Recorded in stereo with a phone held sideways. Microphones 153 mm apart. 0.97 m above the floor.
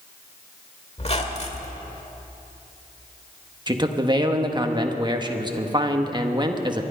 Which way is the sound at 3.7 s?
30° right (ahead or behind).